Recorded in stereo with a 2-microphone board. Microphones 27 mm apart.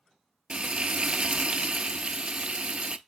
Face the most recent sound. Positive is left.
turn(degrees=-45)  # may be behind; listen again after turning